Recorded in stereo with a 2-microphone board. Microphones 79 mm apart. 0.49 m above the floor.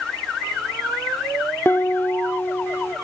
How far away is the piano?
About 0.6 m.